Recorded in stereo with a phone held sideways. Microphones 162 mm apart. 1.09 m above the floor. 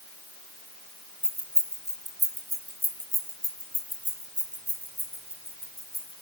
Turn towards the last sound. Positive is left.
turn(degrees=-35)  # may be behind; listen again after turning